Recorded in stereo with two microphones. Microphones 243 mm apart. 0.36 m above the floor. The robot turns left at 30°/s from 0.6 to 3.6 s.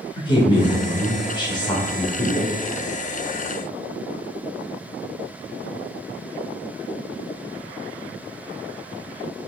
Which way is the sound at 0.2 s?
20° left (ahead or behind).